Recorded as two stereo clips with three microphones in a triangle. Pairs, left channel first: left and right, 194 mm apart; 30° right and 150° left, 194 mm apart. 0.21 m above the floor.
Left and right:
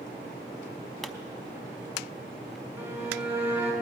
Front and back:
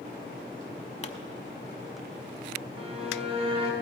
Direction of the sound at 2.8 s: 165° right.